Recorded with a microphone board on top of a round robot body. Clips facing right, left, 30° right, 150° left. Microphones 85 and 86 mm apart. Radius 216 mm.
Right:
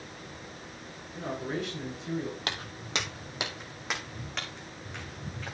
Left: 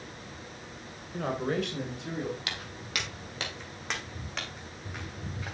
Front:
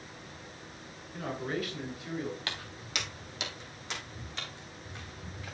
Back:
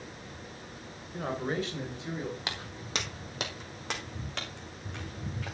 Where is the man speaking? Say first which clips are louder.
Left 4 dB, back 2 dB; 95° left, 2.5 m; by 2.4 s 85° left, 4 m.